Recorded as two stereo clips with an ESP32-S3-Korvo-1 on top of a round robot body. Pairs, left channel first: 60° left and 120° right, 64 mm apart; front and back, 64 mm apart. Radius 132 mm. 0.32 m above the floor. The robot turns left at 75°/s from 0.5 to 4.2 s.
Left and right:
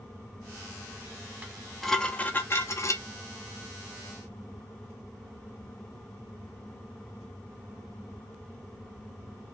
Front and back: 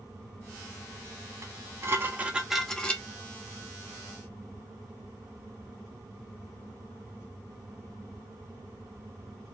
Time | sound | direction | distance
1.4 | dishes clattering | straight behind | 0.9 m